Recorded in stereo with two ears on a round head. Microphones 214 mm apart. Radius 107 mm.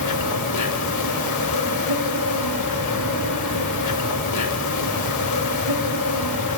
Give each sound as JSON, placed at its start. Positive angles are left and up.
{"t": 0.0, "sound": "an insect", "side_deg": 85, "distance_m": 0.7}